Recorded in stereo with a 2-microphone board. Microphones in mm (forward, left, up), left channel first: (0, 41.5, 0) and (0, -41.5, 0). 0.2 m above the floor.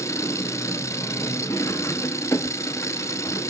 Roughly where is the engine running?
Left.